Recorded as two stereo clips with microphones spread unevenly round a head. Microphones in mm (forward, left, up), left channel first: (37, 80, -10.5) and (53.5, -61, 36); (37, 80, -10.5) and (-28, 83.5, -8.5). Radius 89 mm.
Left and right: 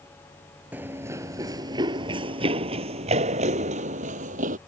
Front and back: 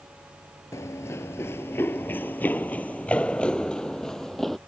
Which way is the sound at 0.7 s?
30° right.